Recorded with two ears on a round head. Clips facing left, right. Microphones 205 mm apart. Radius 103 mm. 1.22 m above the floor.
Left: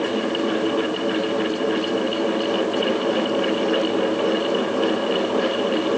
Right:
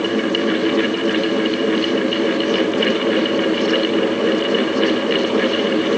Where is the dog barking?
No dog barking in this recording.